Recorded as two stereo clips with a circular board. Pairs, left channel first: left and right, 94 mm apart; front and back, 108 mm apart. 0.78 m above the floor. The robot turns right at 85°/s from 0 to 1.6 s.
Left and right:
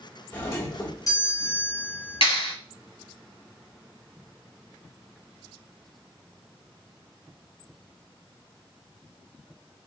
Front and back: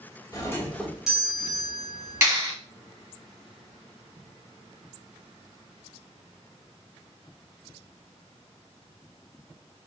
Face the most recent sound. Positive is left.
turn(degrees=110)